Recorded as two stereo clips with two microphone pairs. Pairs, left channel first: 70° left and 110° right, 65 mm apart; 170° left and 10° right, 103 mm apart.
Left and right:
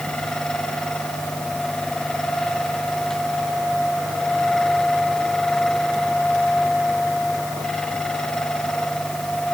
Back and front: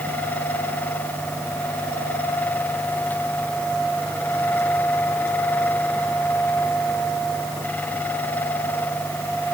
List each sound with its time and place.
Only background noise.